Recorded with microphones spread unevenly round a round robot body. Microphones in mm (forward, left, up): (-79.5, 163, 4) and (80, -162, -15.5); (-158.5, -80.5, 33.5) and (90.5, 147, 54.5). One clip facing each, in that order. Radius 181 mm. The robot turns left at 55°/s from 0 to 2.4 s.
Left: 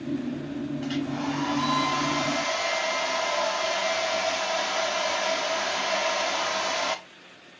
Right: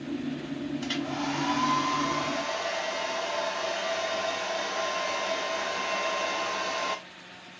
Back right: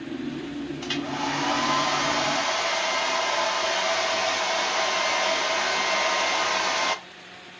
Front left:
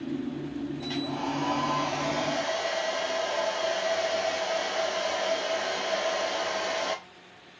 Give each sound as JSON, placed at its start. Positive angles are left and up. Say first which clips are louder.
{"t": 0.8, "sound": "a hair dryer", "louder": "left 3 dB, back right 1 dB", "azimuth_deg": -100, "distance_m": 1.4}